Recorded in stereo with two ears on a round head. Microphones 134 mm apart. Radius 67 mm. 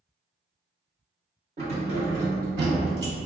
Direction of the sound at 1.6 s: 40° right (ahead or behind).